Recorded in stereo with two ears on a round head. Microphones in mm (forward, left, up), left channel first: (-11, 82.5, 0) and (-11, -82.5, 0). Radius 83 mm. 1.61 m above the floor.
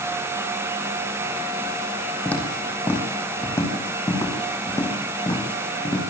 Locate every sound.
2.2 s footsteps: 10° left (ahead or behind), 5 m; by 6.0 s 25° left (ahead or behind), 8 m